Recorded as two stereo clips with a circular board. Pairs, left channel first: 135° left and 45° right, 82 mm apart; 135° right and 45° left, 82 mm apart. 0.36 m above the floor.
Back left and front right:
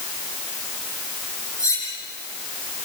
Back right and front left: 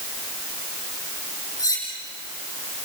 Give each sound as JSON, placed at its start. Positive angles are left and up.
{"t": 1.6, "sound": "cutlery clinking", "azimuth_deg": 180, "distance_m": 9.5}